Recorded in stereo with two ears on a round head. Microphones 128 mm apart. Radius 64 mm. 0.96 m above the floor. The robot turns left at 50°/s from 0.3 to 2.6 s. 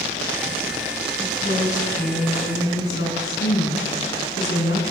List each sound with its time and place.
1.2 s a woman speaking: 150° left, 8.5 m; by 4.8 s 80° left, 8.5 m